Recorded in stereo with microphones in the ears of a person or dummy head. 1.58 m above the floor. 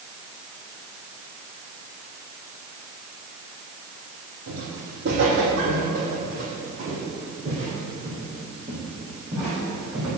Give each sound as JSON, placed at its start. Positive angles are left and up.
{"t": 4.5, "sound": "footsteps", "side_deg": -55, "distance_m": 3.5}